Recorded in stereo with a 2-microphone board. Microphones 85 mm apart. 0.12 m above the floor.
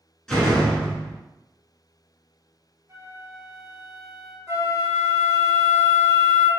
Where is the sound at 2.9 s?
35° right (ahead or behind), 0.6 m.